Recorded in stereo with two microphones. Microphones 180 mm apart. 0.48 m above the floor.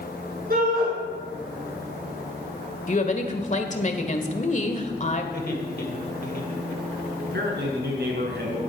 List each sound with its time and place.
0.5 s a shout: 55° right (ahead or behind), 7 m
2.9 s a woman speaking: 40° left (ahead or behind), 1.5 m
5.3 s laughter: 60° left (ahead or behind), 2.5 m
7.2 s a man speaking: 65° right (ahead or behind), 5 m